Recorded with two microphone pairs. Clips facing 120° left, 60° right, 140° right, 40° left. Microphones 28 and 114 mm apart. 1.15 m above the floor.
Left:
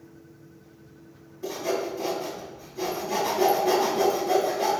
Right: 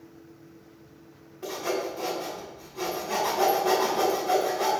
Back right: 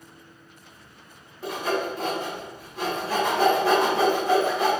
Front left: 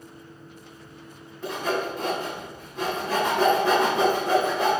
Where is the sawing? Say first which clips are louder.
Left 1 dB, even; 55° right, 1.8 m.